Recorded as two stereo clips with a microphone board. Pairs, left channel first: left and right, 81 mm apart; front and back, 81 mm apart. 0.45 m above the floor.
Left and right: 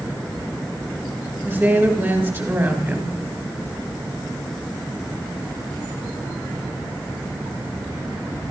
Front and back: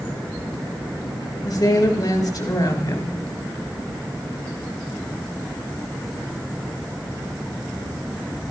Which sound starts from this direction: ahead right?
A woman speaking, at 1.4 s.